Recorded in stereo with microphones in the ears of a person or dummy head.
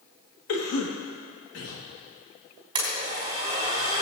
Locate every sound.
0.5 s a cough: 85° left, 1.7 m
2.8 s a blender: 30° right (ahead or behind), 3.5 m